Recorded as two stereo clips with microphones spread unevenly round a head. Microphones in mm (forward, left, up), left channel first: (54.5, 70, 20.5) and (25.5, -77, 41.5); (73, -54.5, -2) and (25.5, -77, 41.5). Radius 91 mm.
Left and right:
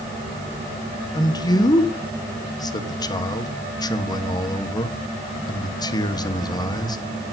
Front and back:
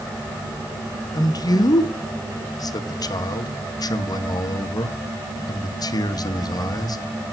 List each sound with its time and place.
1.1 s a man speaking: 10° left, 1.5 m